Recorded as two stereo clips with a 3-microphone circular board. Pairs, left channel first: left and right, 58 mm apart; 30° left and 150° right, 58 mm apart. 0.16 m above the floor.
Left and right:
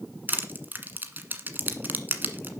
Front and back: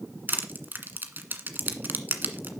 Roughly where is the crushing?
Behind right.